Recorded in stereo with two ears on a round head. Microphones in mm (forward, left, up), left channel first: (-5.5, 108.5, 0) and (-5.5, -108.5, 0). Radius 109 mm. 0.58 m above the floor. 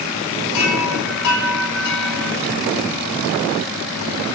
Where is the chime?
85° left, 5.5 m.